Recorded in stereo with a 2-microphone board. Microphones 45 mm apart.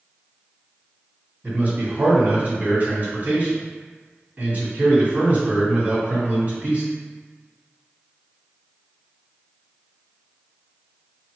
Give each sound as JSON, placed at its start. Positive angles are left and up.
{"t": 1.4, "sound": "a man speaking", "side_deg": -40, "distance_m": 2.0}